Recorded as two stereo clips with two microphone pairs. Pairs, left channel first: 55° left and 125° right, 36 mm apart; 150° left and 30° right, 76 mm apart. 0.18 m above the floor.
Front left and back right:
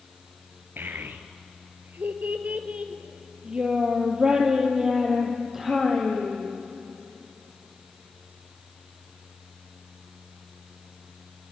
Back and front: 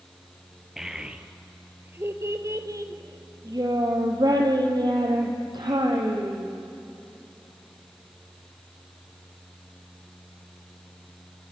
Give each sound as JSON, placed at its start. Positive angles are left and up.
{"t": 0.8, "sound": "a child speaking", "azimuth_deg": -115, "distance_m": 2.0}